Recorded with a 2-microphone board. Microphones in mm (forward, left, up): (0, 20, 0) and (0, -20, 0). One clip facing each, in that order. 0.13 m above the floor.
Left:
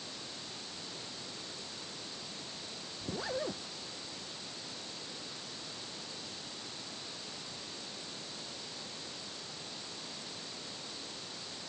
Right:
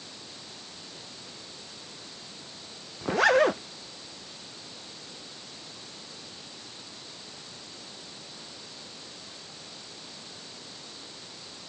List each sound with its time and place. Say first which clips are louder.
3.0 s a zipper: right 16 dB; 80° right